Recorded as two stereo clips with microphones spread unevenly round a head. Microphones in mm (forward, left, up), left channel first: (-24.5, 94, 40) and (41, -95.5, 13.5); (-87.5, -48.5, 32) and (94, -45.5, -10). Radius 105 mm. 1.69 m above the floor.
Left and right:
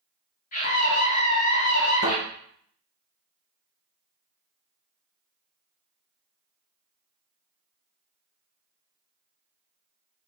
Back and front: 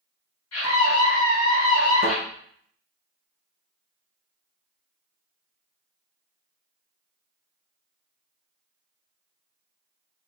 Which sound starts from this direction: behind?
A scream, at 0.5 s.